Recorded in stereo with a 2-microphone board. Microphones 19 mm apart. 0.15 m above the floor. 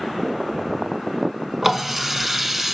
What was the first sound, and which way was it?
A running tap, 20° right (ahead or behind).